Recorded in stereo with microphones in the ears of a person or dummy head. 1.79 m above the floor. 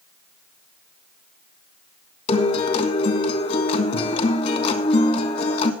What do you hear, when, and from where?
2.3 s a guitar: 40° left (ahead or behind), 1.7 m